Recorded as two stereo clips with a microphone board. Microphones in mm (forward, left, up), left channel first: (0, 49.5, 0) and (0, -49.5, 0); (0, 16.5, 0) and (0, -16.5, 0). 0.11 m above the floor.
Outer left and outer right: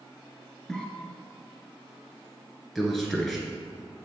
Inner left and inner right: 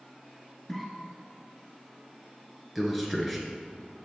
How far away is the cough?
About 1.3 m.